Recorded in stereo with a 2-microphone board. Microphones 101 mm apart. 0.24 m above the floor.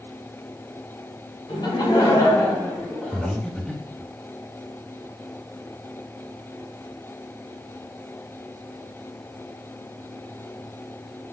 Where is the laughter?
55° left (ahead or behind), 2 m; by 3.3 s 5° right (ahead or behind), 2 m.